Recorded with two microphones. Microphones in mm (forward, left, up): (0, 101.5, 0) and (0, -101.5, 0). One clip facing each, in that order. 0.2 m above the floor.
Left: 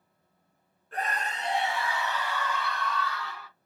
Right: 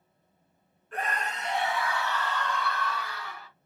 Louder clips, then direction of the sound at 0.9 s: Even; 40° left (ahead or behind).